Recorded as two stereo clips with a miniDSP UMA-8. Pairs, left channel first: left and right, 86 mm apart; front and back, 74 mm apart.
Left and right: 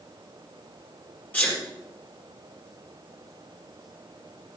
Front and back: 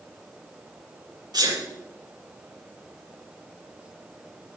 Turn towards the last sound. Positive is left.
turn(degrees=155)